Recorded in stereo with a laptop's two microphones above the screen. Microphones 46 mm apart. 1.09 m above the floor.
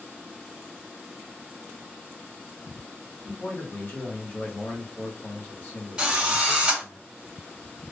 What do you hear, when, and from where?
3.2 s a man speaking: 50° left (ahead or behind), 1.6 m
6.0 s a drill: 15° right (ahead or behind), 1.6 m